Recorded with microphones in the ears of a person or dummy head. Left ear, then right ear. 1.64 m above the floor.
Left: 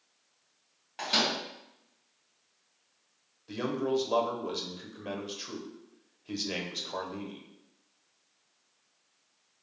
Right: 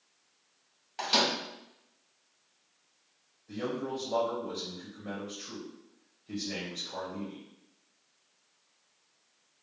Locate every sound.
1.0 s a microwave: 10° right (ahead or behind), 1.6 m
3.5 s a man speaking: 65° left (ahead or behind), 1.0 m